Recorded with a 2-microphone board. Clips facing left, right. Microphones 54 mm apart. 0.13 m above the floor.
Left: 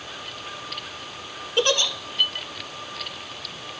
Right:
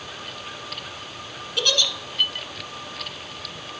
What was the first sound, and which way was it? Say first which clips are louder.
A giggle: left 3 dB; 35° left (ahead or behind).